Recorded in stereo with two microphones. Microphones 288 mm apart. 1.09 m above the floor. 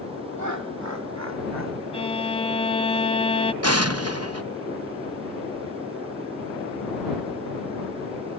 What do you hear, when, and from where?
0.4 s laughter: 75° right (ahead or behind); by 1.8 s 65° right (ahead or behind)
1.9 s a violin: 20° left (ahead or behind)
3.6 s an explosion: 55° right (ahead or behind)